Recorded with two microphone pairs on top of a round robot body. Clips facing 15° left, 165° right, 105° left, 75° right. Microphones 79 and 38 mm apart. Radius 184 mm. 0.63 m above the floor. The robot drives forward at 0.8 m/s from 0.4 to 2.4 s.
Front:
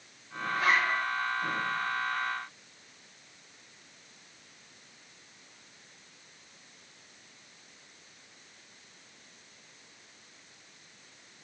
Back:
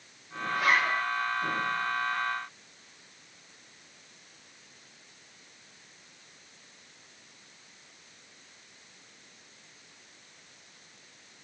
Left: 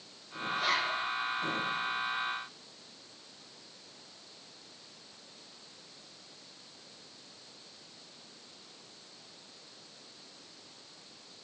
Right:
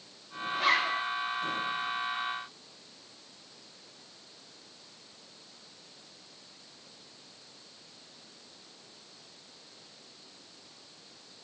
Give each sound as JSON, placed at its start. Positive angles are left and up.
{"t": 0.5, "sound": "a zipper", "azimuth_deg": -80, "distance_m": 4.0}